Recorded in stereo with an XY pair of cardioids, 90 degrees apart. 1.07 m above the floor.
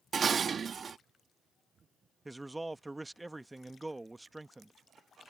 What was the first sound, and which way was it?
Dishes clattering, 50° right.